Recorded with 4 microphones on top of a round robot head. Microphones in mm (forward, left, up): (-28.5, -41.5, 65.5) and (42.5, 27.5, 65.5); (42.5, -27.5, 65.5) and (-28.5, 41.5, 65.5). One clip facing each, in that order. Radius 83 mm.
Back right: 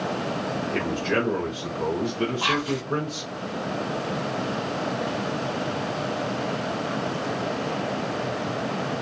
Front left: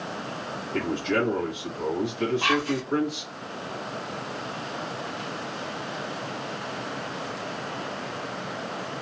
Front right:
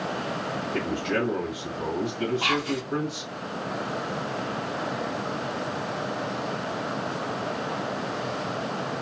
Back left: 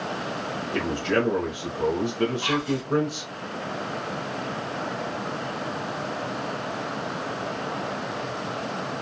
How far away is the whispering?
About 0.6 m.